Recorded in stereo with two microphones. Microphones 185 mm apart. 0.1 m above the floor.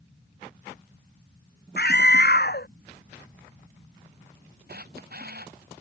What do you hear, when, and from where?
1.8 s a scream: 60° left (ahead or behind)
4.7 s a camera shutter: 60° right (ahead or behind)